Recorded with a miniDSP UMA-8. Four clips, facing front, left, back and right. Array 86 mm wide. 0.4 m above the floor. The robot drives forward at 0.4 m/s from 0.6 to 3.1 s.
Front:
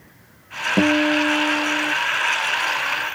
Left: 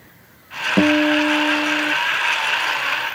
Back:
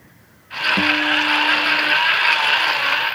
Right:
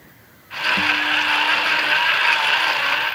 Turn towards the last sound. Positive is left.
turn(degrees=65)